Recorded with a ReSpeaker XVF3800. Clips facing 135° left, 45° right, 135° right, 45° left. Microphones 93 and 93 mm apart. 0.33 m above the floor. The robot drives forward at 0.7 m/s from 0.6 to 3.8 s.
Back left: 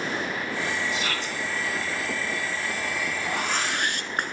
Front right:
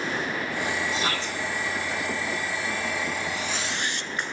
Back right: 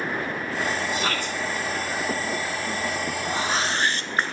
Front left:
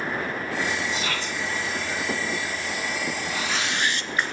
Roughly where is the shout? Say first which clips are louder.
Front right 1 dB, back right 2 dB; right.